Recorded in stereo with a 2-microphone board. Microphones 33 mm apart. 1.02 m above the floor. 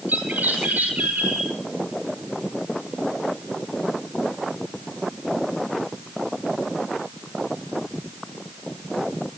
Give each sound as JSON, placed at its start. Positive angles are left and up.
{"t": 0.1, "sound": "a bird", "side_deg": -60, "distance_m": 9.0}